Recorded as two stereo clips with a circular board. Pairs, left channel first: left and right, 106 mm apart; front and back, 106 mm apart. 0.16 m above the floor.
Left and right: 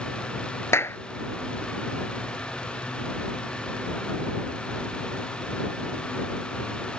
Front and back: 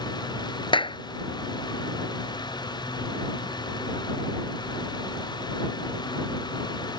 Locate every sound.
0.7 s a clap: 30° left